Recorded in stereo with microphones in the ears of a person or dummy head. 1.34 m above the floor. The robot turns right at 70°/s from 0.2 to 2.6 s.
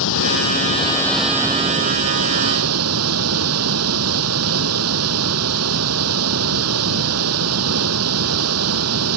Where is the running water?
105° left; by 9.2 s 85° right.